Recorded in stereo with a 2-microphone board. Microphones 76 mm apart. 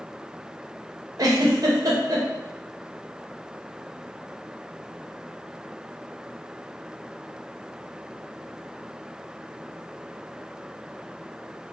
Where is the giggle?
55° right (ahead or behind), 0.6 m.